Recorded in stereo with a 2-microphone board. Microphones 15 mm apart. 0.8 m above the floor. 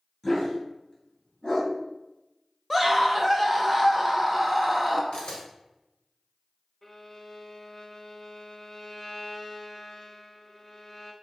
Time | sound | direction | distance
0.2 | a dog barking | 40° left (ahead or behind) | 2.5 m
2.7 | a scream | 5° left (ahead or behind) | 0.6 m
5.1 | a camera shutter | 70° left (ahead or behind) | 2.0 m
6.8 | a violin | 30° left (ahead or behind) | 0.8 m